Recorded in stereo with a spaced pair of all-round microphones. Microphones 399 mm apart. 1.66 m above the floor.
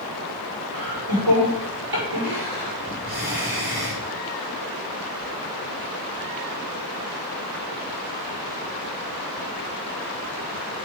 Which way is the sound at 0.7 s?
65° right (ahead or behind).